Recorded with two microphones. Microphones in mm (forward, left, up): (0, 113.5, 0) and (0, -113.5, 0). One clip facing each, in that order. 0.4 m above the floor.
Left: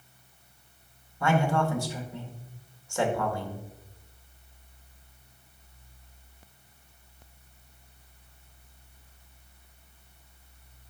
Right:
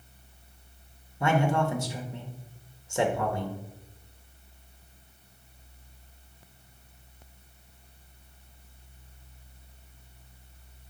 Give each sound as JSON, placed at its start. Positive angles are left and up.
{"t": 1.2, "sound": "a man speaking", "side_deg": -20, "distance_m": 1.0}